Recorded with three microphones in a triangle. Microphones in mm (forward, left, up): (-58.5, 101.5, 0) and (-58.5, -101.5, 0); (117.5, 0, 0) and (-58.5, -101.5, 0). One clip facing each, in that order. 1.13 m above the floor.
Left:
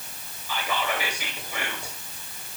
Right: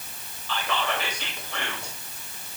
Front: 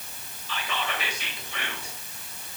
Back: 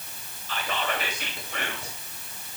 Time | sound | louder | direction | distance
0.5 | whispering | even, back 3 dB | 170° left | 2.5 m